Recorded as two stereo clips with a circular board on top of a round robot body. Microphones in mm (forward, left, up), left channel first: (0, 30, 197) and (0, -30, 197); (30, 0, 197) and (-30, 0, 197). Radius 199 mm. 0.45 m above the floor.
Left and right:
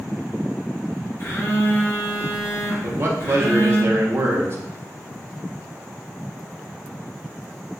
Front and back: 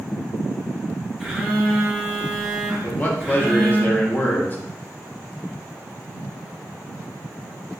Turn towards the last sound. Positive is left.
turn(degrees=-50)